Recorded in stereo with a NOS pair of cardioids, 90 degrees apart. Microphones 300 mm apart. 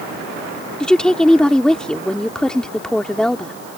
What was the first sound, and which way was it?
A woman speaking, 5° left.